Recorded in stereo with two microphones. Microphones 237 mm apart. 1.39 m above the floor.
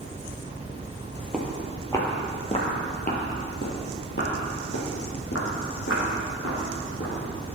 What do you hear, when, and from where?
1.3 s footsteps: 5° right (ahead or behind), 1.8 m; by 7.5 s 70° left (ahead or behind), 5 m